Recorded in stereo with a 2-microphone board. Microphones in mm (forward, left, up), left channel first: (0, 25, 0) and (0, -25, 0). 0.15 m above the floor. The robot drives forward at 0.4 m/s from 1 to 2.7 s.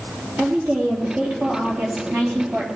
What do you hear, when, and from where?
0.4 s a woman speaking: 30° right (ahead or behind), 3.5 m; by 2.7 s 40° right (ahead or behind), 3 m